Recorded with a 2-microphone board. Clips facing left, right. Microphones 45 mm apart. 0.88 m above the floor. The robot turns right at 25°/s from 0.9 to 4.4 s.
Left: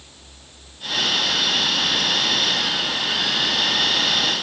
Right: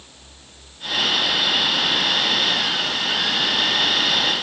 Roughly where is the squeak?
I don't hear a squeak.